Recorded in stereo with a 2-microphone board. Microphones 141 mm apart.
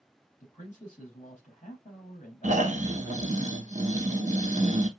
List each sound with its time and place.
0.4 s a man speaking: 55° left (ahead or behind), 4 m
2.4 s snoring: 60° right (ahead or behind), 0.7 m